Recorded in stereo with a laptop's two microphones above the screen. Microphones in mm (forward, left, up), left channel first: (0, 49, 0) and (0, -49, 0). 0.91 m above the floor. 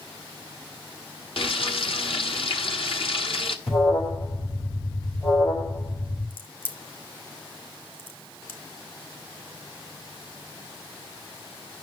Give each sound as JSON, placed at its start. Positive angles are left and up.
{"t": 1.4, "sound": "frying", "side_deg": 65, "distance_m": 0.9}
{"t": 3.7, "sound": "an alarm", "side_deg": 80, "distance_m": 6.5}
{"t": 6.3, "sound": "a crack", "side_deg": 60, "distance_m": 2.0}